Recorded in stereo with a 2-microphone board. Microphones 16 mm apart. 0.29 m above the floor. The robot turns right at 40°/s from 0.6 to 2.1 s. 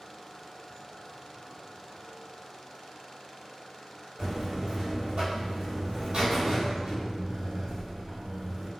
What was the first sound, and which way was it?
A buzzer, 70° right (ahead or behind).